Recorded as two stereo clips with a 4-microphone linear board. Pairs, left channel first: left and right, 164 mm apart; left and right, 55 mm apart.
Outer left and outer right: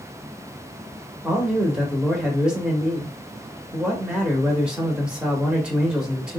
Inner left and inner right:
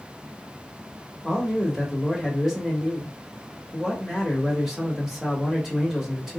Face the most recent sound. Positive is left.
turn(degrees=-5)  # may be behind; listen again after turning